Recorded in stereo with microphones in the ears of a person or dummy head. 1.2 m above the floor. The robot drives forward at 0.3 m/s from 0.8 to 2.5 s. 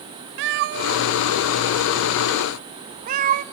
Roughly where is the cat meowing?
Right.